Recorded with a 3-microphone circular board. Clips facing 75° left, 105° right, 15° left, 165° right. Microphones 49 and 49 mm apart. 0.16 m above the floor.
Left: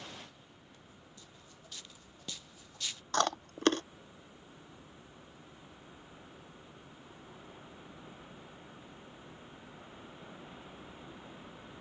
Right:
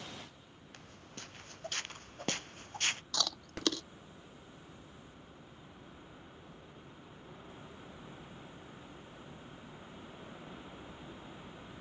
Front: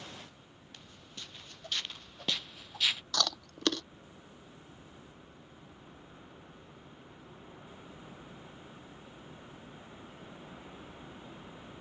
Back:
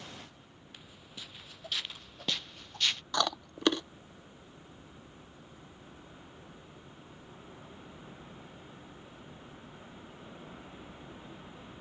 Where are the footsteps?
85° right; by 3.0 s 65° right.